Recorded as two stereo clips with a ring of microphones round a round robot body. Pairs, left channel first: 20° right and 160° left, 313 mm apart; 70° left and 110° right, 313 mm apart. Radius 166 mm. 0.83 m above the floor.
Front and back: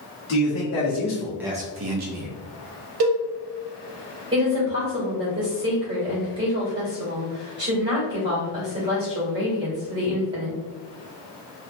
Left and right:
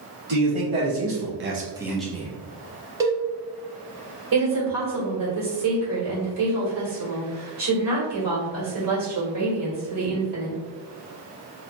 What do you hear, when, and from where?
0.3 s a man speaking: 65° right, 1.7 m; by 2.3 s 145° left, 1.2 m
3.0 s a cowbell: 170° left, 0.8 m
4.3 s a woman speaking: 135° right, 1.8 m